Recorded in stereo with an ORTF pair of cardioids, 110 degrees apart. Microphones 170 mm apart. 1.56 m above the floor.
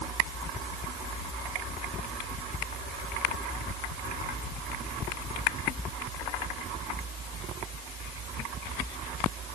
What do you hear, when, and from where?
Only background noise.